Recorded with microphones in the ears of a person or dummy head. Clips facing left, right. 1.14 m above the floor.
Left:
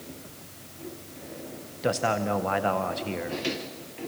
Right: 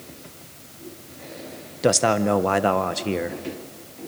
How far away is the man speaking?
About 0.7 m.